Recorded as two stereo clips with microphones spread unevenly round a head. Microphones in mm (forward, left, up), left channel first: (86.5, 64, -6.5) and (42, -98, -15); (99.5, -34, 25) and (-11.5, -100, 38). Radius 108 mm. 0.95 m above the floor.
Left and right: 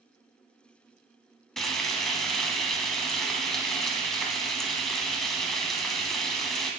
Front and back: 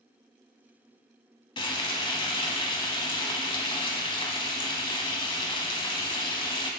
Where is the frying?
10° right, 1.0 m.